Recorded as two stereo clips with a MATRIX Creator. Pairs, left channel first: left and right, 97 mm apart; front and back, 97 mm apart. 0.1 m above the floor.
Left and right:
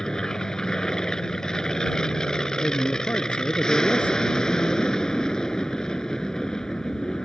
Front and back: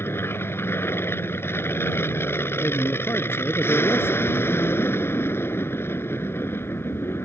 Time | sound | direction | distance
0.0 | an aircraft | 15° left | ?
2.6 | a man speaking | 35° left | ?